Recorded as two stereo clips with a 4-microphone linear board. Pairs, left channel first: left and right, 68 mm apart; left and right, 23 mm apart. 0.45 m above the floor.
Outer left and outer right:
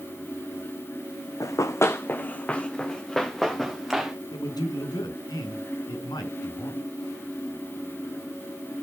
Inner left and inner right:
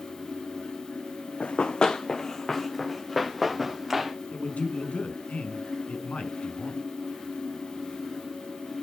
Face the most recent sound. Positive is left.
turn(degrees=80)